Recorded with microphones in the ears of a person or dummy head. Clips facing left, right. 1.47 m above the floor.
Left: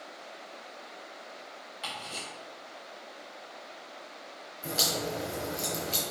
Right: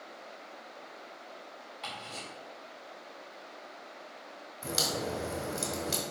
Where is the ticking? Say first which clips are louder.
Left 2 dB; centre (ahead or behind), 2.5 m.